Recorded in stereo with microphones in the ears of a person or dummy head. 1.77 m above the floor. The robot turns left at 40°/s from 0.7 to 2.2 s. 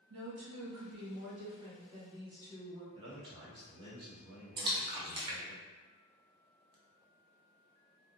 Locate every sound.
0.1 s a woman speaking: 95° right, 1.5 m; by 2.8 s 155° right, 1.5 m
2.9 s a man speaking: 30° right (ahead or behind), 1.2 m
4.6 s a splash: 25° right (ahead or behind), 0.6 m